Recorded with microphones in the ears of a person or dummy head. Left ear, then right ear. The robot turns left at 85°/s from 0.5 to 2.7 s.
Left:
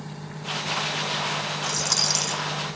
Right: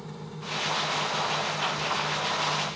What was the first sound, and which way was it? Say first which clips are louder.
A dropped coin: left 4 dB; 135° left.